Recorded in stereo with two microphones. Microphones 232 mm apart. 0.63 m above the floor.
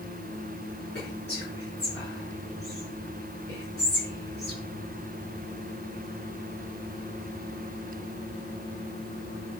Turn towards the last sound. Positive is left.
turn(degrees=45)  # may be behind; listen again after turning